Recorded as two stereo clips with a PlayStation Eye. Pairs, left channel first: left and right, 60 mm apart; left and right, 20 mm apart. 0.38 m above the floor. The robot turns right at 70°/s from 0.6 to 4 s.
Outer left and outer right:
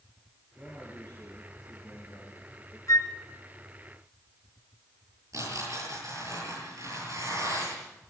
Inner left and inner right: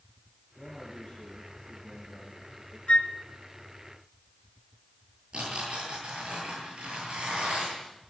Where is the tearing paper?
60° right (ahead or behind), 10 m.